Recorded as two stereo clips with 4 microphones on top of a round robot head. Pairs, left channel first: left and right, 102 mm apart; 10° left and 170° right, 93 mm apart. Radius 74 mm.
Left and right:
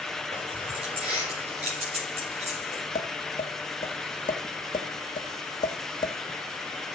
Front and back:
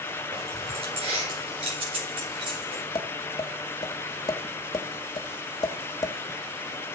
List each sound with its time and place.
0.3 s keys jangling: 135° right, 4.5 m; by 2.8 s 120° right, 5.5 m
3.0 s tapping: 55° left, 1.5 m